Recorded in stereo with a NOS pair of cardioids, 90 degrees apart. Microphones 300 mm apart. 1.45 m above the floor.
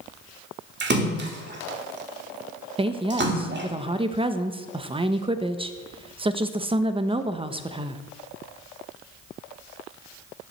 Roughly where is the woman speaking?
Ahead.